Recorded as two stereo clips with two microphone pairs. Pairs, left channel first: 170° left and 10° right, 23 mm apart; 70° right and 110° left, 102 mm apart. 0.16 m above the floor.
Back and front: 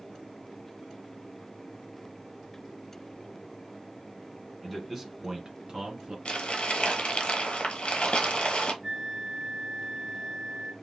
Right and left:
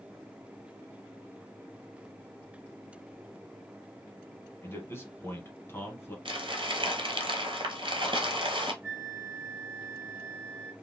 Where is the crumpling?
140° left, 1.1 m.